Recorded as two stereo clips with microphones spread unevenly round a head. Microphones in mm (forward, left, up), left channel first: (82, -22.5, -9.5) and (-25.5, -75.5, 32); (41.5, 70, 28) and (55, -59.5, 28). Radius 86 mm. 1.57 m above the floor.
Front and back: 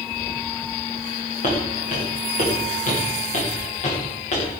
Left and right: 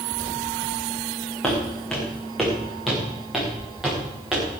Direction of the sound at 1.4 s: 10° left.